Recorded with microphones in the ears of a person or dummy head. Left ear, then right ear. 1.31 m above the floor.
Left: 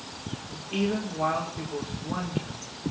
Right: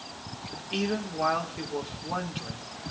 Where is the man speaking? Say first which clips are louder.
Left 1 dB; 25° right (ahead or behind), 4.5 m.